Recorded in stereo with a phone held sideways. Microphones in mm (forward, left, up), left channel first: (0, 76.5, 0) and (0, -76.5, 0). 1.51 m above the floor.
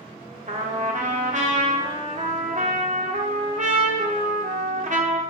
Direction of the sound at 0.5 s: 55° right (ahead or behind).